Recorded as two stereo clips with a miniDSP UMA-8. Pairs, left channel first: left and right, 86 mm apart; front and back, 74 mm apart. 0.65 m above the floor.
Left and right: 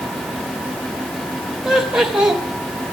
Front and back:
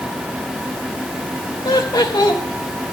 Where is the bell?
I don't hear a bell.